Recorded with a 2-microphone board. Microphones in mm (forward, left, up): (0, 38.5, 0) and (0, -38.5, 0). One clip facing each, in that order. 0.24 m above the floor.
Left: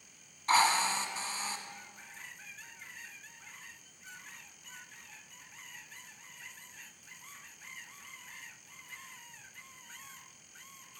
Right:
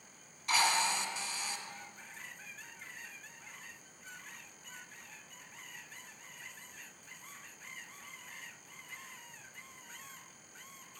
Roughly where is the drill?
Left.